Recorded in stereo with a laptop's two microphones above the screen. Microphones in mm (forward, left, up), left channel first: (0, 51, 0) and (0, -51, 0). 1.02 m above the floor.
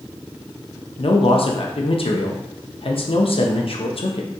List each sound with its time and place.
1.0 s a man speaking: 65° left (ahead or behind), 0.5 m